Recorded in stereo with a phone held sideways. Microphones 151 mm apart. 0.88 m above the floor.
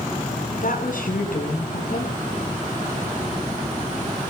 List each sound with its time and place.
0.6 s a woman speaking: 65° left (ahead or behind), 10 m